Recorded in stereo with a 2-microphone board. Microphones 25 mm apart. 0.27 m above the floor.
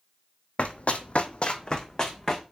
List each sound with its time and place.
0.6 s running footsteps: 55° left (ahead or behind), 0.6 m; by 2.4 s 20° left (ahead or behind), 1.0 m